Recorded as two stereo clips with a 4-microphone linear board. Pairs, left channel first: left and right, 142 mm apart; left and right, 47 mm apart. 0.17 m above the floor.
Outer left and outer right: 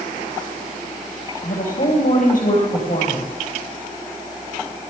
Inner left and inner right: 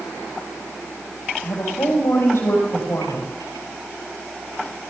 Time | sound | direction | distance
1.4 | a woman speaking | 65° left (ahead or behind) | 4.5 m